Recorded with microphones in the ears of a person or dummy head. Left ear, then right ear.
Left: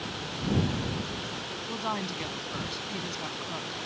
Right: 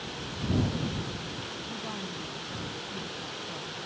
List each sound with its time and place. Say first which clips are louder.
1.7 s a woman speaking: left 5 dB; 55° left (ahead or behind)